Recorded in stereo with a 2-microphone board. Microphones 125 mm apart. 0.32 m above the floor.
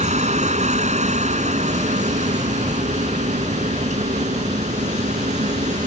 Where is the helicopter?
65° right (ahead or behind); by 5.9 s 70° right (ahead or behind).